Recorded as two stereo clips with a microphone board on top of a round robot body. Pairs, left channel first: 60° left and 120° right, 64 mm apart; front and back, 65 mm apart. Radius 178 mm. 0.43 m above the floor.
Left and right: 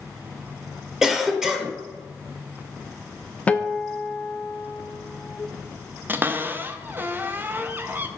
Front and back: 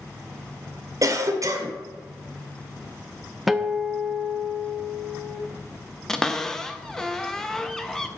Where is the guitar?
95° left, 0.8 m.